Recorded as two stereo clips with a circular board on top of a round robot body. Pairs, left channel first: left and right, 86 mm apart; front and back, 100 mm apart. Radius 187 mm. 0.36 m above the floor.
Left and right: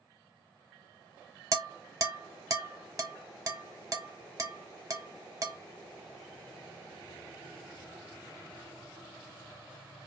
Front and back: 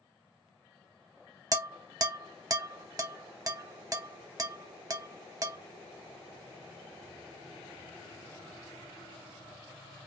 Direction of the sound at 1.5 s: 130° right.